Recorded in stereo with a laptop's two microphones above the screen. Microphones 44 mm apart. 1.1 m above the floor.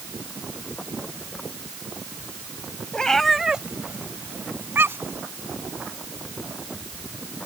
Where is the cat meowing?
15° left (ahead or behind); by 5.2 s 65° right (ahead or behind).